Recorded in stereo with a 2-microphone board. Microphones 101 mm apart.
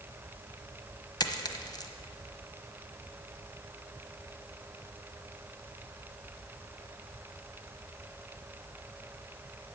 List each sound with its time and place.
1.2 s a dropped coin: 45° left (ahead or behind), 1.1 m